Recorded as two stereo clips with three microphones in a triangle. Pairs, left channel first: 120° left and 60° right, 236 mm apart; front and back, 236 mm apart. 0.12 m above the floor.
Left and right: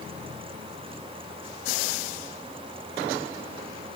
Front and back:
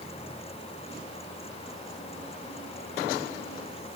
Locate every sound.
Only background noise.